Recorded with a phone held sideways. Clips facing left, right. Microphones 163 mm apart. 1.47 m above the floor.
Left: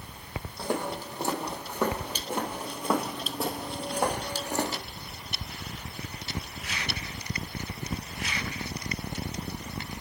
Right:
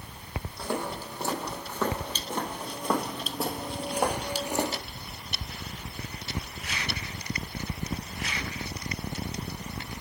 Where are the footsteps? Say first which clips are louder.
Left 2 dB; 20° left (ahead or behind), 2.5 m; by 4.8 s 15° right (ahead or behind), 1.5 m.